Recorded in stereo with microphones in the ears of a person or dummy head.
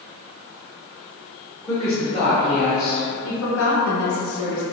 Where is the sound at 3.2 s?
80° left, 0.9 m.